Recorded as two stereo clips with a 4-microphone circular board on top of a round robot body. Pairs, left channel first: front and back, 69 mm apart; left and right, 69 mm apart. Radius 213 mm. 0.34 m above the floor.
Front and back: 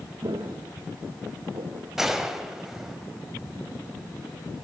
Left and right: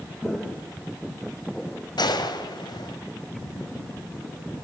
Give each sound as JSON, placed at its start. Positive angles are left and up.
{"t": 0.2, "sound": "footsteps", "azimuth_deg": 180, "distance_m": 4.0}
{"t": 2.0, "sound": "a gunshot", "azimuth_deg": 95, "distance_m": 2.0}